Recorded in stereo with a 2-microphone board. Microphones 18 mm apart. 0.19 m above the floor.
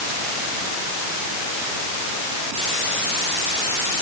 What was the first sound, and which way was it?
Only background noise.